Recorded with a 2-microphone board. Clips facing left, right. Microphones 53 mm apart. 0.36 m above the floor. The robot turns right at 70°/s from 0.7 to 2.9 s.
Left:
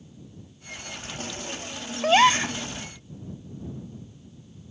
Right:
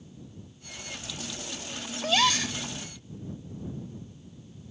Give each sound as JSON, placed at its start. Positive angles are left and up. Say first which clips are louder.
{"t": 2.0, "sound": "a gasp", "louder": "left 7 dB", "azimuth_deg": 110}